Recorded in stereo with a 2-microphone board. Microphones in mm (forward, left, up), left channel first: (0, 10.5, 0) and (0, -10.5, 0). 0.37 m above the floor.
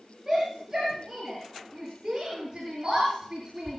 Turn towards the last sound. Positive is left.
turn(degrees=-35)  # may be behind; listen again after turning